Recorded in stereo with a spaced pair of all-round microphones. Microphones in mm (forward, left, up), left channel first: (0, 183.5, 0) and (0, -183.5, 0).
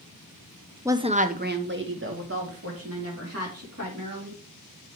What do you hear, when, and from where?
0.8 s a woman speaking: 5° right (ahead or behind), 0.6 m; by 4.4 s 40° right (ahead or behind), 3.5 m